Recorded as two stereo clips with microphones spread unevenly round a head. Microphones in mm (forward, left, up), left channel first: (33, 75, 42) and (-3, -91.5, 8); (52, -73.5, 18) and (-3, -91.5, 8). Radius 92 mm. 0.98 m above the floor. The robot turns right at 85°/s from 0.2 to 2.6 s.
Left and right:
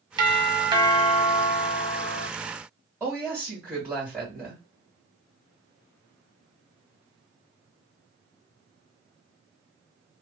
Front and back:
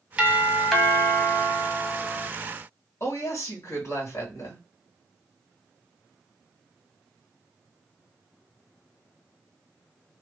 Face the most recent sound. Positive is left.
turn(degrees=-20)